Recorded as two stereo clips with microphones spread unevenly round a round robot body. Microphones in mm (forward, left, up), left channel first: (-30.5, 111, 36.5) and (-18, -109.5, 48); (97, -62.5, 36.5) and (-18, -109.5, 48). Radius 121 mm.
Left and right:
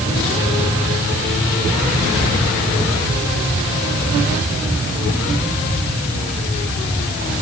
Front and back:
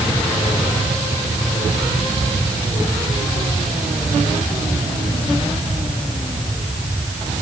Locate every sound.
Only background noise.